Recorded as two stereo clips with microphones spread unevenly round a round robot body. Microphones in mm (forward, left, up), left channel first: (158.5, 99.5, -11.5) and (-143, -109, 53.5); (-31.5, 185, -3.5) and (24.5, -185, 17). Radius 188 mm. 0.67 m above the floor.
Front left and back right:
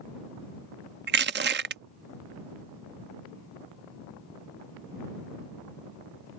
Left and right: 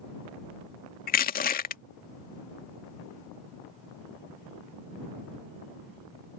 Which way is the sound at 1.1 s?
150° left.